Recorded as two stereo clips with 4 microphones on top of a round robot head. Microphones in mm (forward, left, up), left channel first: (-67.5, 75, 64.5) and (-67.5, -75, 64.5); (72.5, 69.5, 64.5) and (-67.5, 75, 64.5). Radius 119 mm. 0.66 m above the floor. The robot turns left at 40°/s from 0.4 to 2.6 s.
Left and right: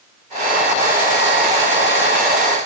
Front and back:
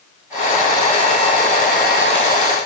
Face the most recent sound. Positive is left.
No sound to turn to.